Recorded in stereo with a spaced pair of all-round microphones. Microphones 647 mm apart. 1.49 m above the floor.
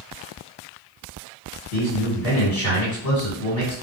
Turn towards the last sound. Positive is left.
turn(degrees=65)  # may be behind; listen again after turning